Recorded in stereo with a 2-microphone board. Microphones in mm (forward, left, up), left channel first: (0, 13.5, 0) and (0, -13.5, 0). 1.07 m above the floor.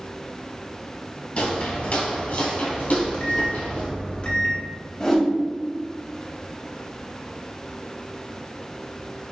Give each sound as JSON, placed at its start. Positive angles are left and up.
{"t": 1.4, "sound": "footsteps", "side_deg": 45, "distance_m": 1.4}
{"t": 2.9, "sound": "a microwave", "side_deg": 35, "distance_m": 0.9}
{"t": 5.0, "sound": "a whoosh", "side_deg": 20, "distance_m": 1.5}